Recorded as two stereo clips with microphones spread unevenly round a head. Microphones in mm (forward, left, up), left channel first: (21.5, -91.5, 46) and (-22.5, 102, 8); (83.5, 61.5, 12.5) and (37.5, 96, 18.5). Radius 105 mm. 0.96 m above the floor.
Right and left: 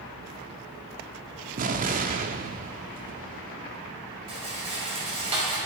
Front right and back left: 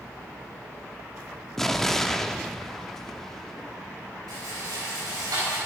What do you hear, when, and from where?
1.6 s an explosion: 50° left, 0.9 m
4.3 s a rattle: 165° left, 5 m